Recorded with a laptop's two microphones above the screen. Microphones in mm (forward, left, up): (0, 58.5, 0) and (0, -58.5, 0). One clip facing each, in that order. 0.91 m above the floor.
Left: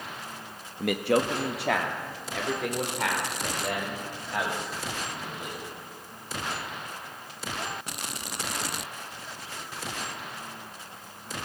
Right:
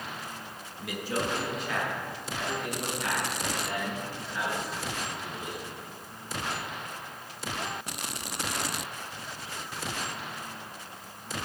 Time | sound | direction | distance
0.8 | a man speaking | 60° left (ahead or behind) | 0.9 m